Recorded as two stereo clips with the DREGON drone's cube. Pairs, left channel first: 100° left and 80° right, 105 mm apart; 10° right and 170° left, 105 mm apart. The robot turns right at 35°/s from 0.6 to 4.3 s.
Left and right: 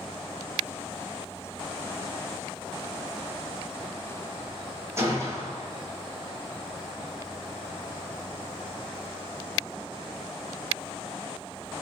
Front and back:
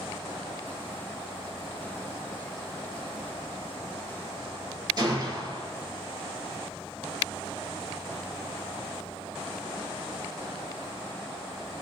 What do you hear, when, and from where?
5.0 s a gunshot: 140° right, 0.7 m